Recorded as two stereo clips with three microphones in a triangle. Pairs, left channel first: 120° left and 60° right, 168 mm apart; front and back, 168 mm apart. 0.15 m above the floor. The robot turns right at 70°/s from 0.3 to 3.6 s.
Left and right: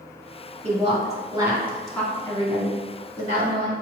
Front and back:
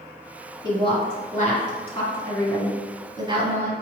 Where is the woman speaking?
55° right, 1.8 m; by 3.7 s 155° left, 1.8 m.